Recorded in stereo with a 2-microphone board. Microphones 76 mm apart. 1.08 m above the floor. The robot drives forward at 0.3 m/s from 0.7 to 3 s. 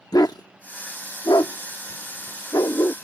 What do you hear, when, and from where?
0.1 s a dog barking: 60° left (ahead or behind); by 3.0 s 50° left (ahead or behind)